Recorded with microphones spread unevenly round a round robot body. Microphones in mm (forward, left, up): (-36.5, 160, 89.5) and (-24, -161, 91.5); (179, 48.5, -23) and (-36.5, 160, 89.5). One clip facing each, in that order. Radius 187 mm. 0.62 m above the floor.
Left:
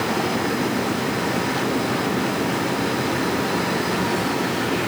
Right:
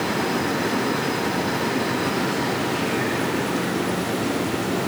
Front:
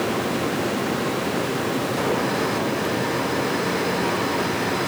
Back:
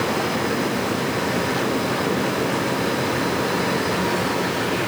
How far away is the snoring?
I don't hear snoring.